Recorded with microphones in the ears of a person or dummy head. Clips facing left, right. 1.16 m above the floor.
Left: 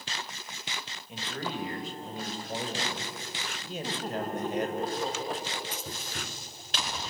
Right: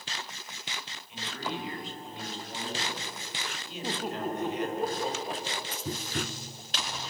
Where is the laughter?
5° right (ahead or behind), 2 m.